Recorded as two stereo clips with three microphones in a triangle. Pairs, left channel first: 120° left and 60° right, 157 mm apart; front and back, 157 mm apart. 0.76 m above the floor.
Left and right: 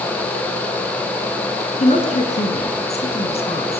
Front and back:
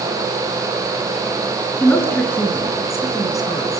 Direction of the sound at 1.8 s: 75° left.